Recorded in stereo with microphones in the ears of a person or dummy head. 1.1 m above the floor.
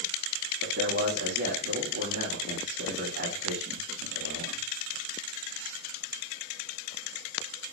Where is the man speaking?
55° right (ahead or behind), 1.4 m.